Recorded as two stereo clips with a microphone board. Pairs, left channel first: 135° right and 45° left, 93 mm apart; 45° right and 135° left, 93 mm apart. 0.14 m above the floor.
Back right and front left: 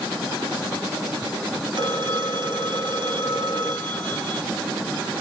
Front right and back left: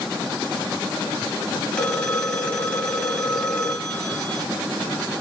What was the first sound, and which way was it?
A phone ringing, 30° left.